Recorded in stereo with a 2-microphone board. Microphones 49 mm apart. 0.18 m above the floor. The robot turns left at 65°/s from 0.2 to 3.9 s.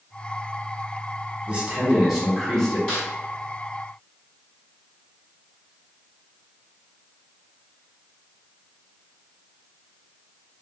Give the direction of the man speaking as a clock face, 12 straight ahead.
4 o'clock.